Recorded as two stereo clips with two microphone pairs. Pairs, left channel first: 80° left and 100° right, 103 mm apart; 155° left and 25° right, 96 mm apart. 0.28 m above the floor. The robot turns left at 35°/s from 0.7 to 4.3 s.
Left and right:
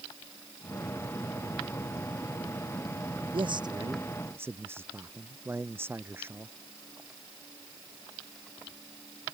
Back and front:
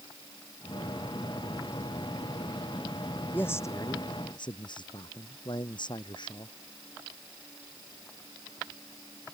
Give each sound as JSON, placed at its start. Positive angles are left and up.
{"t": 3.3, "sound": "a man speaking", "azimuth_deg": -135}